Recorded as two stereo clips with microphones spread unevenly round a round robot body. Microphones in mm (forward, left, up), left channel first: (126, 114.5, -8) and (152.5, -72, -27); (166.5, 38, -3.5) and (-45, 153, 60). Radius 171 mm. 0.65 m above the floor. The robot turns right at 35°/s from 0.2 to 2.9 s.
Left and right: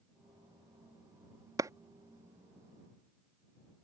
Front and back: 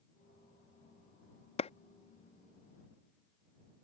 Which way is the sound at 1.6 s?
30° right.